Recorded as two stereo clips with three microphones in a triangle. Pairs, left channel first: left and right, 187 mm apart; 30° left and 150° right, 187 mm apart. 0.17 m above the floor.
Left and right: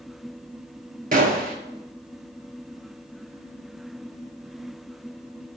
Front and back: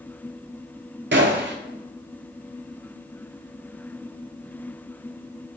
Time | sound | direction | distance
1.1 | a gunshot | 135° right | 0.6 m